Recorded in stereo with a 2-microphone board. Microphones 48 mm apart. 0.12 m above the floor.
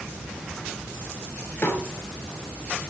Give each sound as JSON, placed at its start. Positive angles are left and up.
{"t": 1.6, "sound": "a snare drum", "side_deg": 60, "distance_m": 6.0}